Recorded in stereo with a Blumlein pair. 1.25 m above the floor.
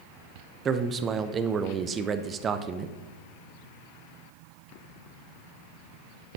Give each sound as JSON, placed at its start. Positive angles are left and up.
{"t": 0.7, "sound": "a man speaking", "azimuth_deg": -25, "distance_m": 0.7}